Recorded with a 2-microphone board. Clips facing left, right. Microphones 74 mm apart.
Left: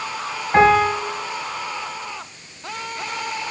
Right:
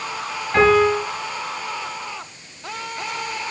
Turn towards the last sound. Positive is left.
turn(degrees=30)  # may be behind; listen again after turning